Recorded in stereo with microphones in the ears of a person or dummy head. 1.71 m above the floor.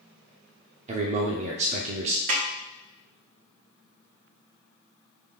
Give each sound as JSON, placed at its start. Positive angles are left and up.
{"t": 0.9, "sound": "a man speaking", "side_deg": -40, "distance_m": 0.6}
{"t": 2.3, "sound": "a snare drum", "side_deg": -45, "distance_m": 1.0}